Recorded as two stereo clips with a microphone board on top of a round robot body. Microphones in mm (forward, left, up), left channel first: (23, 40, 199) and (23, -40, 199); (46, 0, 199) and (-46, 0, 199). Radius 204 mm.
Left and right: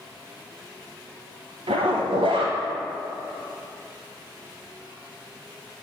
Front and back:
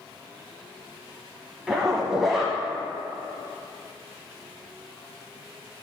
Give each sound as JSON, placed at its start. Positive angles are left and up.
{"t": 1.7, "sound": "a zipper", "azimuth_deg": -95, "distance_m": 0.6}